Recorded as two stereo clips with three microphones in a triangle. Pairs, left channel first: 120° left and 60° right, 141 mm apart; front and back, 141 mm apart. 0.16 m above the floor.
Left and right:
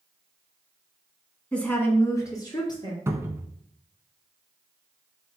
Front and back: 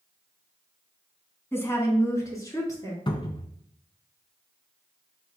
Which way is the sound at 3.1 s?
5° right.